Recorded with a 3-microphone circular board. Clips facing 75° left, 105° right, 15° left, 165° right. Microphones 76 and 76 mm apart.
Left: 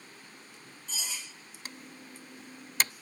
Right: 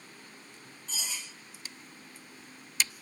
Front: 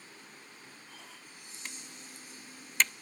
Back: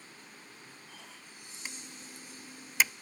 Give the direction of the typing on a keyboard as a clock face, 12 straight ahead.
8 o'clock.